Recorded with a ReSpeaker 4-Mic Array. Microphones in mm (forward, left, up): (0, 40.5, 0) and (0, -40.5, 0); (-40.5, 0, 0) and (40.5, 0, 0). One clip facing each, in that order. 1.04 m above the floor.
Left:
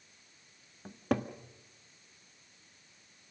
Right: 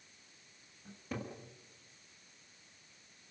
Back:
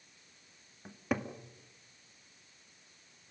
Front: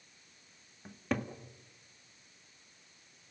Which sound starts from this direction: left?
A cupboard door, at 0.8 s.